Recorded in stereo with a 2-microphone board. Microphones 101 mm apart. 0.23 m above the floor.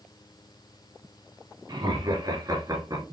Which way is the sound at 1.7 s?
35° right (ahead or behind).